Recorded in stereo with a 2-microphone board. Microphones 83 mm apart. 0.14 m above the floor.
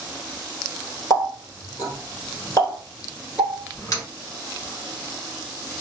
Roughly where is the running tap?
Left.